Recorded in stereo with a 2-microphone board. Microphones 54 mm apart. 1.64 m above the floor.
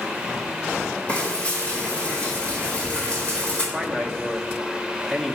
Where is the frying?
25° left (ahead or behind), 4.5 m.